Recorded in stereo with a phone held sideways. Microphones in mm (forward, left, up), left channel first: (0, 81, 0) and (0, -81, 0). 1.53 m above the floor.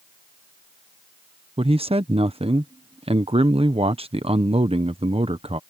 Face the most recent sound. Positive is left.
turn(degrees=-35)  # may be behind; listen again after turning